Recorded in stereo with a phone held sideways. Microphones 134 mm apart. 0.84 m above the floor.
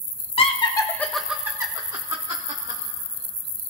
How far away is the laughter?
About 1.2 m.